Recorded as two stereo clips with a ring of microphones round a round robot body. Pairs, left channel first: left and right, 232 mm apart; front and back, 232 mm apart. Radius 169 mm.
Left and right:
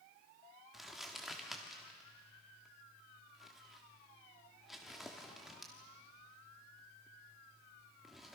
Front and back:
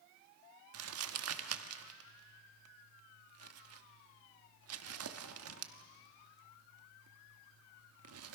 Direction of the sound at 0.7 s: Straight behind.